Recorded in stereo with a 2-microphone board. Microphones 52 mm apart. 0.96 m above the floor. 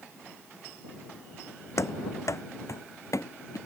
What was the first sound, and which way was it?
Running footsteps, 65° left (ahead or behind).